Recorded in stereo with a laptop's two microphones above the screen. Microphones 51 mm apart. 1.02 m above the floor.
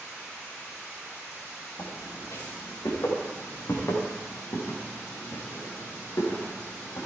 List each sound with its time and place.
1.8 s footsteps: 70° left (ahead or behind), 7.5 m; by 7.1 s 80° left, 7.5 m